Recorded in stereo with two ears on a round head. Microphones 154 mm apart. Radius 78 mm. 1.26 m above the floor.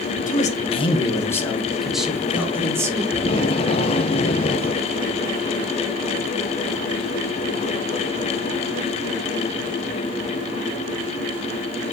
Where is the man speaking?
50° left (ahead or behind), 1.4 m; by 3.0 s 20° right (ahead or behind), 2.5 m.